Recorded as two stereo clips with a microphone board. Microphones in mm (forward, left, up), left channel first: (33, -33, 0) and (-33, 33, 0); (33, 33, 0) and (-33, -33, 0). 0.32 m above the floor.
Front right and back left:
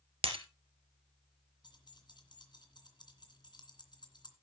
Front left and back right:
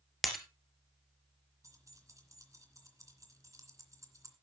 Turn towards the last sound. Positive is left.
turn(degrees=-80)